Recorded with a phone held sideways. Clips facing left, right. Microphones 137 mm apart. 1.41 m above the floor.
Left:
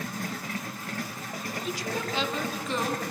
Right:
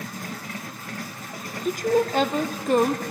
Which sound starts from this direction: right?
A woman speaking, at 1.6 s.